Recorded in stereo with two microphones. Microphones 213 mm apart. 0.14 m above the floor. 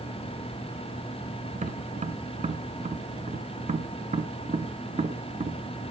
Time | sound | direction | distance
1.6 | tapping | 35° right (ahead or behind) | 0.8 m